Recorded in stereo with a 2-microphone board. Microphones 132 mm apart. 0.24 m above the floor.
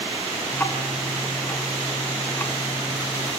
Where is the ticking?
15° left (ahead or behind), 2.5 m.